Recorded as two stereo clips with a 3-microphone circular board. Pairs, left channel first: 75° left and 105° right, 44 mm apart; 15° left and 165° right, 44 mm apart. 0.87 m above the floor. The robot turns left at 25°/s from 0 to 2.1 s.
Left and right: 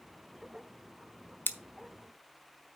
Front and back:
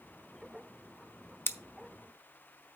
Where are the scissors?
40° left, 0.7 m; by 1.6 s 35° left, 0.7 m.